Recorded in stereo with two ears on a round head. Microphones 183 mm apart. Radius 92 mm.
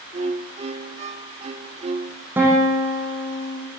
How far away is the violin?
About 1.1 m.